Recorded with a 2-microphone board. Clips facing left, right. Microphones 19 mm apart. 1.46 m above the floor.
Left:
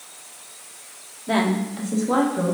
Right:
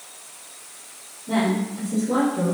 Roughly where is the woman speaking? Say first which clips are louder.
Left 1 dB; left.